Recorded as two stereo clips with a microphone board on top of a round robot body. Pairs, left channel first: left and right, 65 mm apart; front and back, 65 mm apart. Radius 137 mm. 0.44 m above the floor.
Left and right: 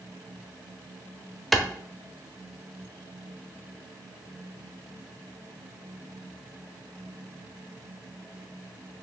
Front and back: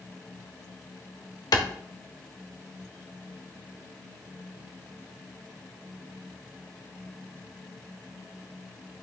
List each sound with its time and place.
1.5 s a clap: straight ahead, 1.4 m